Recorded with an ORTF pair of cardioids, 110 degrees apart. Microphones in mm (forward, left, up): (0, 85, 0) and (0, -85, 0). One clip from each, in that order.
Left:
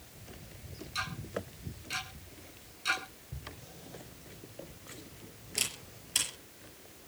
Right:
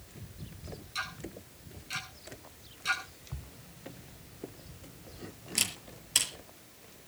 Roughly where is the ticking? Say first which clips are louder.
Left 2 dB; ahead.